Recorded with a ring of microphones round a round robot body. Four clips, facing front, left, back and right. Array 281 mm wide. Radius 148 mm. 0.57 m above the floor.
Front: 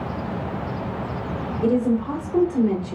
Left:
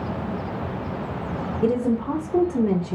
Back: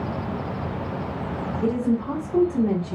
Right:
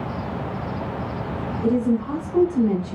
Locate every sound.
1.6 s a woman speaking: 95° left, 1.0 m